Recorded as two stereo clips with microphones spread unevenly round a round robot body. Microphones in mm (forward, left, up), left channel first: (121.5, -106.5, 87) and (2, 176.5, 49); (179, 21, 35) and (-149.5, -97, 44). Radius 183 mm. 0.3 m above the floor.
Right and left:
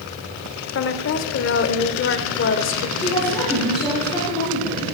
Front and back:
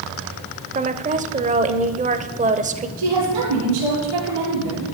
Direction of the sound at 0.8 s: 100° right.